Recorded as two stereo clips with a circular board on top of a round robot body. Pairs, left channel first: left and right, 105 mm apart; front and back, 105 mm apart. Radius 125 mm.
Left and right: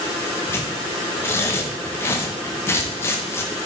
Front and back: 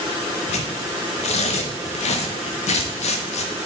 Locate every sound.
0.5 s tearing paper: 20° left, 0.6 m